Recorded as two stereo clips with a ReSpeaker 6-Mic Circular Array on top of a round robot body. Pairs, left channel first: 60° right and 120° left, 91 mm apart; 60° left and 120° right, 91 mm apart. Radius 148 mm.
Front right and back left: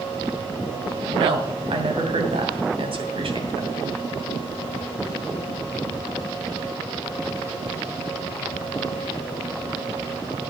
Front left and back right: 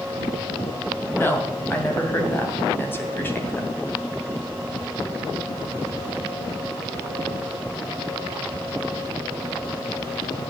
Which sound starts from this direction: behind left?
A woman speaking, at 1.1 s.